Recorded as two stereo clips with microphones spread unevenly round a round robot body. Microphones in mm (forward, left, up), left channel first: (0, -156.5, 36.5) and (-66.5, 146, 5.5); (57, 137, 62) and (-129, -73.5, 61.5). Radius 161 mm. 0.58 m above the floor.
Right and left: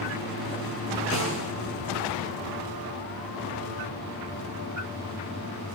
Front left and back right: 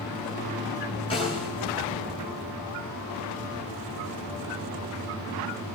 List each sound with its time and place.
1.1 s a snare drum: 25° right, 9.5 m